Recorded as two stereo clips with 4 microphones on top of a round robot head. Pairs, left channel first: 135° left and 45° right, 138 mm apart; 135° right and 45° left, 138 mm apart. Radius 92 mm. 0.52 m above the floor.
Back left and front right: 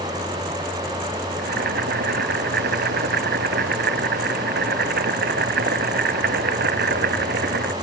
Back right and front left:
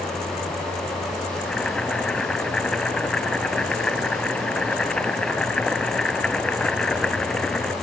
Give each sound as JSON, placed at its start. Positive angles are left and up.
{"t": 1.4, "sound": "boiling", "azimuth_deg": -50}